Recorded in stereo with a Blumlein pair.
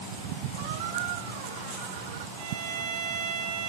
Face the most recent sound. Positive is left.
turn(degrees=-50)